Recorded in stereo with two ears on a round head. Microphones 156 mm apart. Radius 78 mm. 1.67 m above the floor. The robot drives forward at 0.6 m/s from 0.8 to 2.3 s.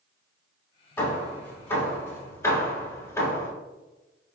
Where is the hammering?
15° left (ahead or behind), 1.8 m.